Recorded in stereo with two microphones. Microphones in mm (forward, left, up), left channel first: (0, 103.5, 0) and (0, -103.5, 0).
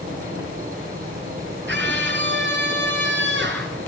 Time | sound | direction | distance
0.0 | an insect | 45° right (ahead or behind) | 5.5 m
1.7 | a scream | 60° right (ahead or behind) | 4.5 m